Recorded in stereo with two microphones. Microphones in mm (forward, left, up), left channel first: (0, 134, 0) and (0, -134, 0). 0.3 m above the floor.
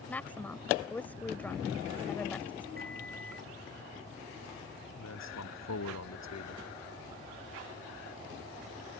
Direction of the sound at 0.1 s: 5° left (ahead or behind).